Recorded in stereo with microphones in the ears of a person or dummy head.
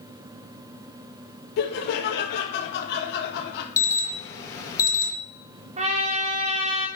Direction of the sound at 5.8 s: 30° right (ahead or behind).